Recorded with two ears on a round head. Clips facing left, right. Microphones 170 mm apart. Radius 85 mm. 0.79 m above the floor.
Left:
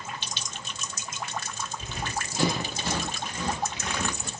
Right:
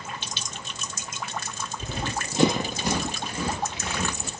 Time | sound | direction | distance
1.8 | running footsteps | 30° right (ahead or behind) | 1.0 m